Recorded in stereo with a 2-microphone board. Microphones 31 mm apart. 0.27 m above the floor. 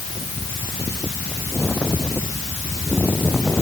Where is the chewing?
No chewing in this recording.